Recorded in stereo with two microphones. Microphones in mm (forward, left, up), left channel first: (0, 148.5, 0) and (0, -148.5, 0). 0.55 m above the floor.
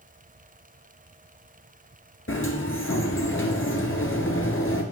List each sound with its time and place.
2.3 s a sliding door: 45° left (ahead or behind), 1.6 m